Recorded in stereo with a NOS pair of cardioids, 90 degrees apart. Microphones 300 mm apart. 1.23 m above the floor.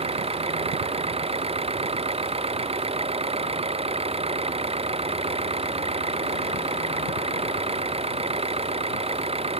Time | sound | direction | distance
0.0 | an engine running | 20° right | ?